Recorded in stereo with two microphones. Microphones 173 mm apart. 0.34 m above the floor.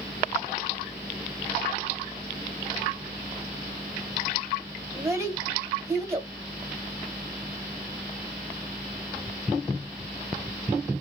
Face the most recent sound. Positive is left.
turn(degrees=-15)  # may be behind; listen again after turning